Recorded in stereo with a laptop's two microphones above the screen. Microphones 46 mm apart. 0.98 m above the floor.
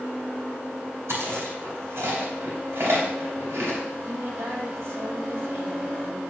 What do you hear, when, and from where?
1.1 s chewing: 70° right (ahead or behind), 3 m
4.1 s a woman speaking: 70° right (ahead or behind), 2 m